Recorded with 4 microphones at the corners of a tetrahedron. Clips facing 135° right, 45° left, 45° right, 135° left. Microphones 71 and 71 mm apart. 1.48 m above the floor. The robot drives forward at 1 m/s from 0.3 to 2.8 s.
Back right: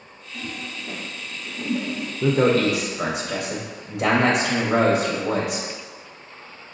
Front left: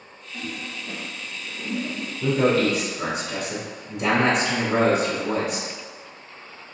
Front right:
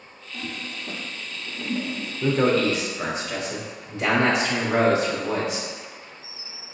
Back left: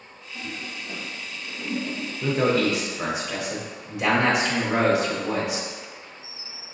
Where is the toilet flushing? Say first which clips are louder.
Even, front right 1 dB; 40° right, 1.4 m; by 2.1 s 130° right, 1.1 m.